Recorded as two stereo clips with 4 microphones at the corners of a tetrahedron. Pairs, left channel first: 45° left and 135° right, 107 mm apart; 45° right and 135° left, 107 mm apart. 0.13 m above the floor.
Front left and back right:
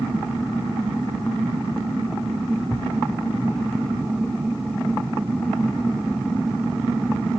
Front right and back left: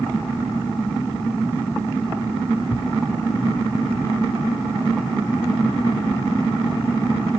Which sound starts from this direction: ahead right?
A thud, at 2.7 s.